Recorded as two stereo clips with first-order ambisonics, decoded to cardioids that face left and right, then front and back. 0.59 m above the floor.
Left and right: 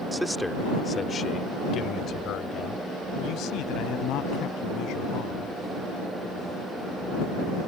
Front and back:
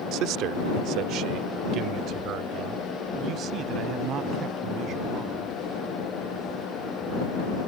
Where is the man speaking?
170° right; by 5.5 s 125° left.